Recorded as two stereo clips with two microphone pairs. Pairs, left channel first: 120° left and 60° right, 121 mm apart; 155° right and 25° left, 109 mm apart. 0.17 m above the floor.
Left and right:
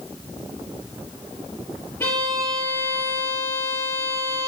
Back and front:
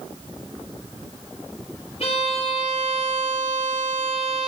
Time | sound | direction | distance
2.0 | a violin | 170° right | 4 m